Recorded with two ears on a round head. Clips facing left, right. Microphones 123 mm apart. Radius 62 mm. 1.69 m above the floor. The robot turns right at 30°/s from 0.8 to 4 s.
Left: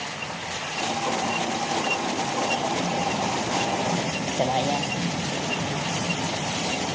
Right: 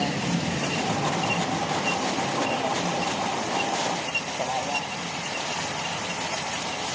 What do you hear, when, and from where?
0.0 s a vehicle: 55° right (ahead or behind); by 7.0 s 25° left (ahead or behind)